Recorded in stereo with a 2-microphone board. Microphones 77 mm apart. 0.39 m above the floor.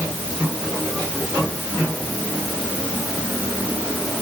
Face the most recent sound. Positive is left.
No sound to turn to.